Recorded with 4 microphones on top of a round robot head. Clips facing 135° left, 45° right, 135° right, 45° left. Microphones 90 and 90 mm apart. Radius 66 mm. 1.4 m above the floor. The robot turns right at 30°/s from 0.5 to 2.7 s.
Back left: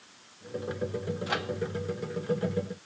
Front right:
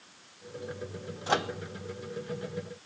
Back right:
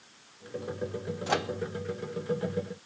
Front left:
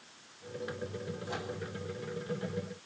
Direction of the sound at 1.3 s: 110° right.